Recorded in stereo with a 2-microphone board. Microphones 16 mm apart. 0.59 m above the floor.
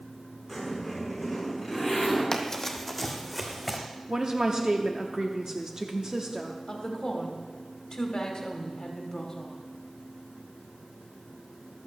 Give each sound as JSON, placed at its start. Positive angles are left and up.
{"t": 0.5, "sound": "a zipper", "side_deg": -10, "distance_m": 5.5}
{"t": 2.3, "sound": "running footsteps", "side_deg": 35, "distance_m": 1.1}
{"t": 4.1, "sound": "a woman speaking", "side_deg": -35, "distance_m": 0.7}
{"t": 6.7, "sound": "a woman speaking", "side_deg": 55, "distance_m": 1.9}